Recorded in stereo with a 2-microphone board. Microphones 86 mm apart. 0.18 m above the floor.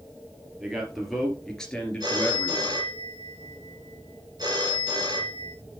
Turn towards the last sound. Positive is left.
turn(degrees=-55)  # may be behind; listen again after turning